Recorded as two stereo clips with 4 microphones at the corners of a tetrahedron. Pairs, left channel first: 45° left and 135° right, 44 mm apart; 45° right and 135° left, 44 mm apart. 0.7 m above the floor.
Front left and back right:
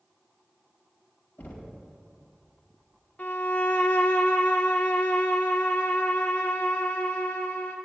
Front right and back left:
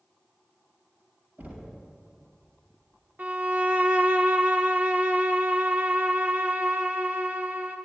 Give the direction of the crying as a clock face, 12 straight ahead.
No crying in this recording.